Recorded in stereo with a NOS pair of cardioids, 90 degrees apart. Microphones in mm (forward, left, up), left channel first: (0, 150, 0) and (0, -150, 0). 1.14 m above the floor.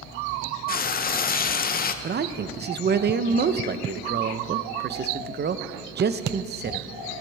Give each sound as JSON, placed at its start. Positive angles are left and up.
{"t": 0.7, "sound": "frying", "azimuth_deg": 30, "distance_m": 0.6}
{"t": 2.0, "sound": "a man speaking", "azimuth_deg": -35, "distance_m": 0.7}